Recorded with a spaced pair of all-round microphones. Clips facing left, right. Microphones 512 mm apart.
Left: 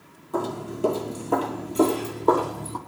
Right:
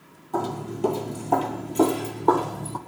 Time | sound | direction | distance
0.3 | footsteps | 10° right (ahead or behind) | 1.6 m